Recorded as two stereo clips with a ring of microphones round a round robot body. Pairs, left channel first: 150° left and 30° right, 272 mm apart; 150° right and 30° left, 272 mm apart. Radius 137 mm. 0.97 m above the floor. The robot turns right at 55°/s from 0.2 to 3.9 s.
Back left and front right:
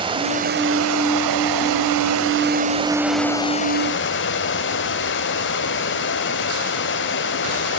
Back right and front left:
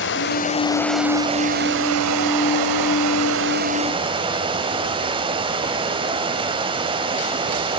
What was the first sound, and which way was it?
Running water, 100° right.